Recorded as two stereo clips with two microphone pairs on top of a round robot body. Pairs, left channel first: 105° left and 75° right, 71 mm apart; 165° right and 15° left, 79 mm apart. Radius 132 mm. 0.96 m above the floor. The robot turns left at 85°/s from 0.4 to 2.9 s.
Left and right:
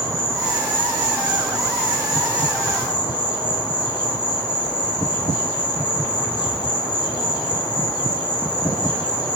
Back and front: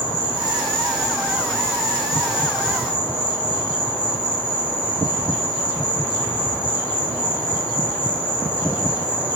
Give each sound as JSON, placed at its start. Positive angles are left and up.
{"t": 0.0, "sound": "an insect", "azimuth_deg": -20, "distance_m": 1.2}